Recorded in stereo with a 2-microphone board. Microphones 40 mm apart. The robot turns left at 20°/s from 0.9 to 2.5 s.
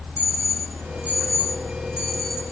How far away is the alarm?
About 5.5 m.